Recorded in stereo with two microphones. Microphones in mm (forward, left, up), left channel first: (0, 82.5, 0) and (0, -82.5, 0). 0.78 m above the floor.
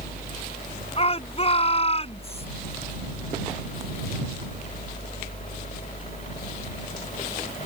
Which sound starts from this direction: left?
A shout, at 1.0 s.